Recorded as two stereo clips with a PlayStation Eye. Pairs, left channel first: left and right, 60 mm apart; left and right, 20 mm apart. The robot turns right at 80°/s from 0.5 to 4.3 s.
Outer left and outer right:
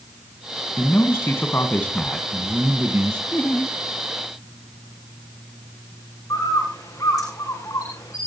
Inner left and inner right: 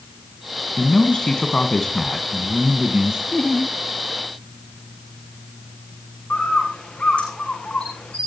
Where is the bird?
80° left, 6 m.